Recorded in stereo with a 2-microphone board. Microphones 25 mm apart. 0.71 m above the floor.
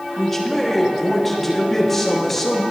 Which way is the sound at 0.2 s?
10° left (ahead or behind).